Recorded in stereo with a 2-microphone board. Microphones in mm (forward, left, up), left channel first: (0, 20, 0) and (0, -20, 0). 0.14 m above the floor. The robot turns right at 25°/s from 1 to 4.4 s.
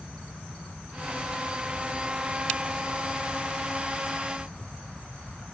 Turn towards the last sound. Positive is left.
No sound to turn to.